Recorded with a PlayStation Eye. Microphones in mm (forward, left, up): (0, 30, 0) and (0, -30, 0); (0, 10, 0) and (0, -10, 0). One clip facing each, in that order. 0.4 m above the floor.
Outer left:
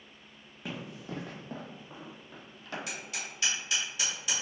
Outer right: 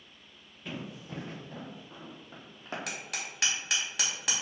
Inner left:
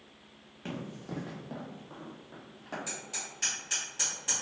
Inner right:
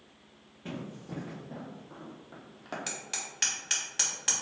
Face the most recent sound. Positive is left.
turn(degrees=-70)  # may be behind; listen again after turning